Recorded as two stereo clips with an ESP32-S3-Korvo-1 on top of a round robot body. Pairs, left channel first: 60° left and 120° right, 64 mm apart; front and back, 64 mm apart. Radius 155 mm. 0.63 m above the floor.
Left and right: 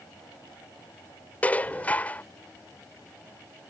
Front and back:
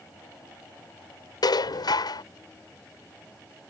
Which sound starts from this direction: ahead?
Dishes clattering, at 1.4 s.